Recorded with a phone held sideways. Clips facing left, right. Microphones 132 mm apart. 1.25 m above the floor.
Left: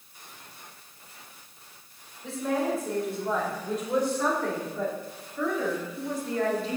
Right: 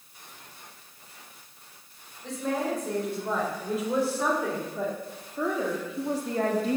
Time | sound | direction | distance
2.2 | a woman speaking | 5° left (ahead or behind) | 5 m